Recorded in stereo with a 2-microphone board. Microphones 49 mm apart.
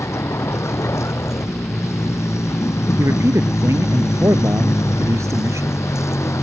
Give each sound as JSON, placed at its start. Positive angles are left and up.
{"t": 0.0, "sound": "a vehicle", "side_deg": 75}
{"t": 3.0, "sound": "a man speaking", "side_deg": -85}